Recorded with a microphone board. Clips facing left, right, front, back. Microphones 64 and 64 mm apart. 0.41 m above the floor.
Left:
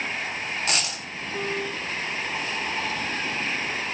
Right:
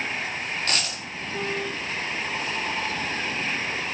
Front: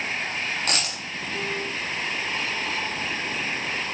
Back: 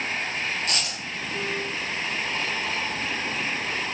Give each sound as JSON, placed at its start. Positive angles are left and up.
{"t": 0.7, "sound": "a dropped coin", "azimuth_deg": 15, "distance_m": 1.6}